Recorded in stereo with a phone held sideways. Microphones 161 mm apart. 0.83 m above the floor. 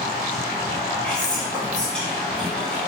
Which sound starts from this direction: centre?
Whispering, at 1.0 s.